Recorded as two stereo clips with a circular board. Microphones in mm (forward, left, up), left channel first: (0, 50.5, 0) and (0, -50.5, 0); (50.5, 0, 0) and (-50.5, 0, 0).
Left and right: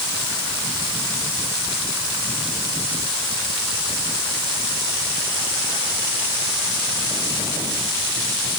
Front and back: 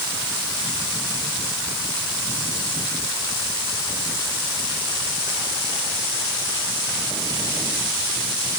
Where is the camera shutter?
I don't hear a camera shutter.